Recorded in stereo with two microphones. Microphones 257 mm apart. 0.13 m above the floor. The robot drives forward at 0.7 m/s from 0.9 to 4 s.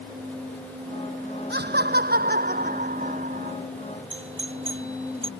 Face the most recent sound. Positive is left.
turn(degrees=-50)  # may be behind; listen again after turning